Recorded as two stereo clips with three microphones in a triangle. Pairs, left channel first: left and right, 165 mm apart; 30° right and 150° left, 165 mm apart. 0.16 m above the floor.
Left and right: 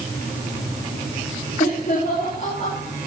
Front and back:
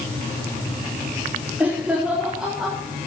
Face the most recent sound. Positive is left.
turn(degrees=60)